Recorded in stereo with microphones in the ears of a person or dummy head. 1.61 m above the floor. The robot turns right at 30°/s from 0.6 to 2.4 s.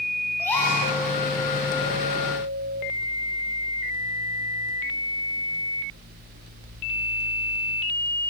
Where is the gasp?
15° left (ahead or behind), 7.5 m; by 0.8 s 20° left (ahead or behind), 7.5 m.